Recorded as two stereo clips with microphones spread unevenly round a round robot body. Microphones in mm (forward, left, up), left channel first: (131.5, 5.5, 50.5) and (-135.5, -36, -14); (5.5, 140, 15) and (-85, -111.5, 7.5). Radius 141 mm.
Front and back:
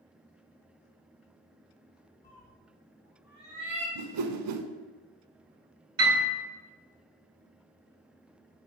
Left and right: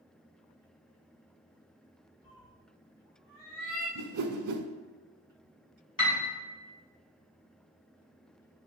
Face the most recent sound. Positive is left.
turn(degrees=140)